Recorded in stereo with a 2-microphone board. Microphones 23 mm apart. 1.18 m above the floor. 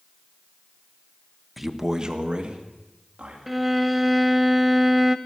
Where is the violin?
5° right (ahead or behind), 0.7 m.